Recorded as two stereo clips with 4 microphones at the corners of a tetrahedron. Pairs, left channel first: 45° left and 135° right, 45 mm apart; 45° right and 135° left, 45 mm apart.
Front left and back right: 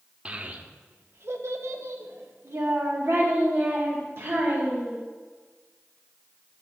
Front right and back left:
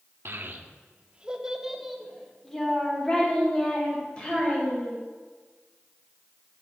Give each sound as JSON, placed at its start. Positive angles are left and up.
{"t": 0.2, "sound": "a child speaking", "azimuth_deg": 165, "distance_m": 0.7}